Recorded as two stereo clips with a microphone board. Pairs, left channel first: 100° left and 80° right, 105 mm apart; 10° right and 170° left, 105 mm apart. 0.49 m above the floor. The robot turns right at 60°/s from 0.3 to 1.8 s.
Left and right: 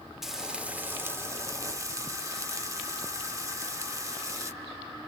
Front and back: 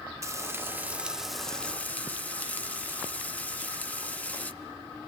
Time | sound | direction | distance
0.2 | frying | 160° right | 0.9 m